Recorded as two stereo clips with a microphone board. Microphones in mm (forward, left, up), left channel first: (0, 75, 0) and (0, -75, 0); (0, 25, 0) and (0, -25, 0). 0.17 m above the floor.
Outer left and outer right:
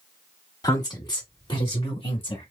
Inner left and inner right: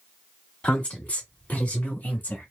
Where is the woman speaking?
25° left (ahead or behind), 1.6 m; by 2.5 s 40° left (ahead or behind), 2 m.